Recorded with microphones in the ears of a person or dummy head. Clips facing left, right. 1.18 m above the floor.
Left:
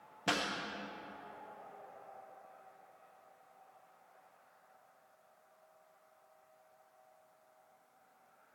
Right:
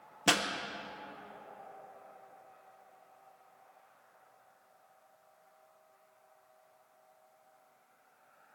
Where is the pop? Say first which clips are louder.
Right 5 dB; 65° right (ahead or behind), 0.5 m.